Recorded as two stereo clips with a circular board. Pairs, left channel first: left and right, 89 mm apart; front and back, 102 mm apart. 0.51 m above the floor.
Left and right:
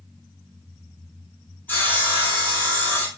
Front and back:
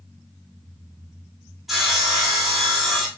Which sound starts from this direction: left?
Sawing, at 1.7 s.